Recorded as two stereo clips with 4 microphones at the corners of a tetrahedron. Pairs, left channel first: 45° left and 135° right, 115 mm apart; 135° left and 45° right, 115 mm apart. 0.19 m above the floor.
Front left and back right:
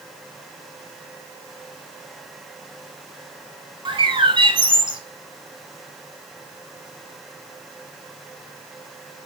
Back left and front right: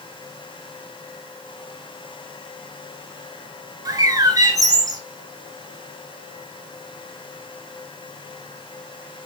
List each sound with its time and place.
3.9 s a bird: 95° right, 0.7 m